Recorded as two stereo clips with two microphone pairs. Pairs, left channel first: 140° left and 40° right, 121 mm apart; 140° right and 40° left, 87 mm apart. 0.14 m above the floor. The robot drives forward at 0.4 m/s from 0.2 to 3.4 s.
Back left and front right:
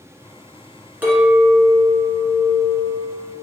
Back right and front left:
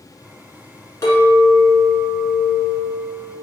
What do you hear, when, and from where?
1.0 s a clink: 105° right, 1.3 m; by 3.4 s 145° right, 1.7 m